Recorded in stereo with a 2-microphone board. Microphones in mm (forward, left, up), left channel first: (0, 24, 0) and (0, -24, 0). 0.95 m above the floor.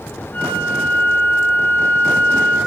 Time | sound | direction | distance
0.3 | a flute | 40° left (ahead or behind) | 8.5 m